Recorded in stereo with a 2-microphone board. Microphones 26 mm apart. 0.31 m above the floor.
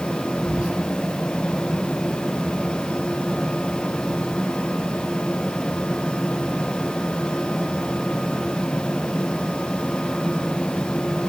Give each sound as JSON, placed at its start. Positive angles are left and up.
{"t": 0.5, "sound": "whispering", "side_deg": -35, "distance_m": 3.5}